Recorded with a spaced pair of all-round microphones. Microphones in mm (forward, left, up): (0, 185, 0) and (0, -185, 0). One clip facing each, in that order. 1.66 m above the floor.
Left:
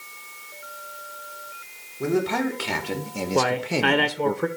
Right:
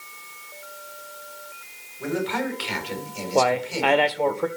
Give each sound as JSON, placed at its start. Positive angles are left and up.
{"t": 2.0, "sound": "a man speaking", "side_deg": 55, "distance_m": 2.0}
{"t": 3.4, "sound": "a man speaking", "side_deg": 25, "distance_m": 0.7}